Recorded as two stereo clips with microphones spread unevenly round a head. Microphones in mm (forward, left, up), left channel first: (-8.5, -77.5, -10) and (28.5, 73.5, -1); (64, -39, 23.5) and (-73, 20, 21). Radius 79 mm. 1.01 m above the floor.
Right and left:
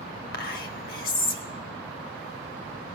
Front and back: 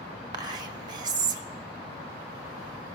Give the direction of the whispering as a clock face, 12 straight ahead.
5 o'clock.